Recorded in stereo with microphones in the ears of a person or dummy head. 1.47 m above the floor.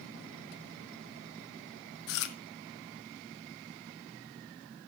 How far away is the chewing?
About 0.8 m.